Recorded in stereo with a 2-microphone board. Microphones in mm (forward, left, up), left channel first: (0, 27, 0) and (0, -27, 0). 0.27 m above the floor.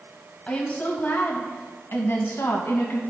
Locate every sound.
0.5 s a woman speaking: 25° left (ahead or behind), 1.2 m; by 3.0 s 60° left (ahead or behind), 1.8 m